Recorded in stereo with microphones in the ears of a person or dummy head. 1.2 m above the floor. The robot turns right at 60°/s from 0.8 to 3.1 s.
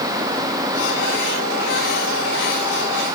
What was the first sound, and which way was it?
Only background noise.